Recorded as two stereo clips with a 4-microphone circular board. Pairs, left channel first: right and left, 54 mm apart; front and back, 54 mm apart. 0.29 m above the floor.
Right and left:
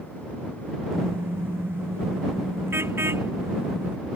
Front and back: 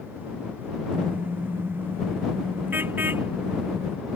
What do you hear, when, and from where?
0.9 s a car horn: 130° left